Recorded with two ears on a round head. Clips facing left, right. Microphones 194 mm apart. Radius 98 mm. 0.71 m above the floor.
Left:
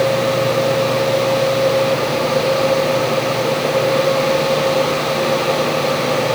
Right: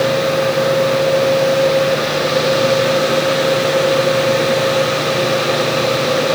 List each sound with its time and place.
Only background noise.